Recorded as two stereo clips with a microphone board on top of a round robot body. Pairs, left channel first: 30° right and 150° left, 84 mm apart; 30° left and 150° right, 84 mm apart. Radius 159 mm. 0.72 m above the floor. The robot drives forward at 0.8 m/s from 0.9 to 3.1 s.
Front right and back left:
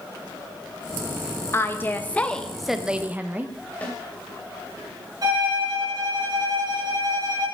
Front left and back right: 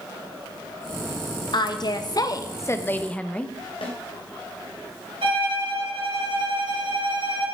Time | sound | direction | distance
1.5 | a woman speaking | 25° left | 1.6 m
3.8 | a snare drum | 40° left | 3 m
5.2 | a violin | 165° right | 3 m